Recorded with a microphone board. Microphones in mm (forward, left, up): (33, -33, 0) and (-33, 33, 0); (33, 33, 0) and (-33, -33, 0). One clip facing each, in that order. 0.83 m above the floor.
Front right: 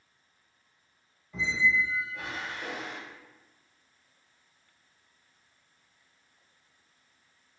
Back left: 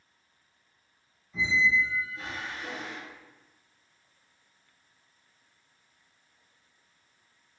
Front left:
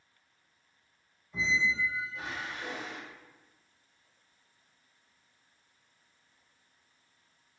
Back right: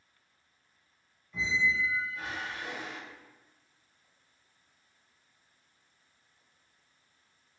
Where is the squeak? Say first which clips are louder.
Back left 1 dB, even; 25° right, 1.0 m.